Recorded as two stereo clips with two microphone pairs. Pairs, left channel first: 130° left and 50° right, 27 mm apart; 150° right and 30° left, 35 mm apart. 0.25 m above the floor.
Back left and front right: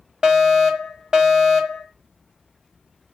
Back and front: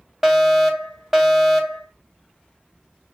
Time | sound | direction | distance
0.2 | a fire alarm | 45° right | 2 m